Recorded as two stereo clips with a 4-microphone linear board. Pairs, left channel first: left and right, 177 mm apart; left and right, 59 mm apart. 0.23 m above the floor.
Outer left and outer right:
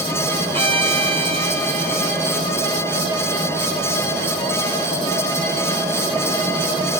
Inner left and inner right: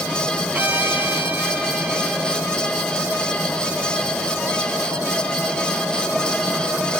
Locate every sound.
0.5 s a violin: 30° right (ahead or behind), 1.8 m